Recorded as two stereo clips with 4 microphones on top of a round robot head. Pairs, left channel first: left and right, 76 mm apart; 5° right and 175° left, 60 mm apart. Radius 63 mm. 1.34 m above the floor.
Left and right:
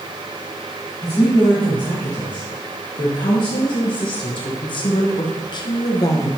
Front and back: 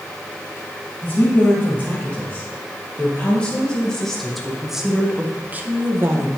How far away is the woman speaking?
About 2.5 m.